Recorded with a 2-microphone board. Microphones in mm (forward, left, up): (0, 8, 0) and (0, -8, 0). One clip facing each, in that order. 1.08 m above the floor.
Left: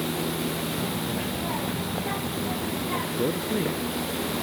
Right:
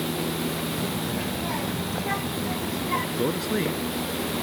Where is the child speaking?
35° right (ahead or behind); by 3.1 s 45° right (ahead or behind).